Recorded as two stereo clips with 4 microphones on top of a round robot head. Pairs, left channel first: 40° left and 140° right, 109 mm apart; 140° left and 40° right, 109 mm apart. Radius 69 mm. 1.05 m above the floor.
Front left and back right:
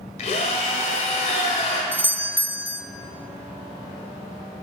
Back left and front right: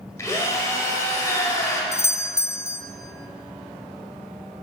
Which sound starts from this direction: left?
A drill, at 0.2 s.